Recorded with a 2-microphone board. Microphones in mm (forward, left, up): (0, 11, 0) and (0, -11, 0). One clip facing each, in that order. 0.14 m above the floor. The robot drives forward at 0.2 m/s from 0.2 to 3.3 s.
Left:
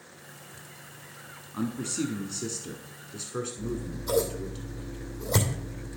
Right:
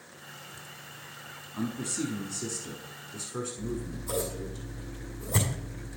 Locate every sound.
1.5 s a man speaking: 20° left (ahead or behind), 1.2 m
3.6 s scissors: 60° left (ahead or behind), 2.5 m